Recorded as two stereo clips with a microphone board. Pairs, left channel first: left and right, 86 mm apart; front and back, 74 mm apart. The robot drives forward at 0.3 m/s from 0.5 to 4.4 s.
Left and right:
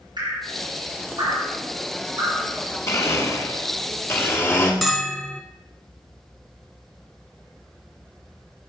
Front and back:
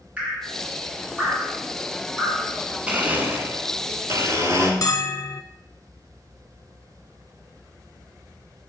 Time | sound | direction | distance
0.2 | dripping | 110° right | 3.5 m
2.9 | a blender | 115° left | 0.9 m
4.8 | a bell | 5° left | 0.6 m